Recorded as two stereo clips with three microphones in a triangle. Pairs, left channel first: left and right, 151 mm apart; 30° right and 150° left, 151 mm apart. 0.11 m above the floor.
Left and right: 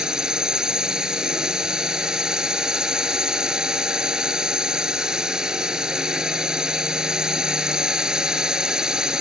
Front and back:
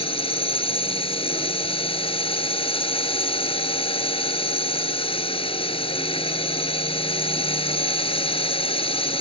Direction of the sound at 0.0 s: 5° right.